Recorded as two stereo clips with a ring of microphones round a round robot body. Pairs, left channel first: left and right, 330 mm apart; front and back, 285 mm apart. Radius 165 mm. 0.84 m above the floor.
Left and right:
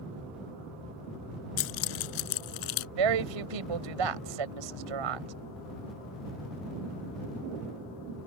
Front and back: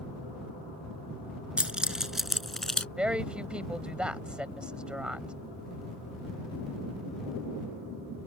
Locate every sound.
1.6 s keys jangling: 95° left; by 2.9 s 90° left
3.0 s a woman speaking: 95° right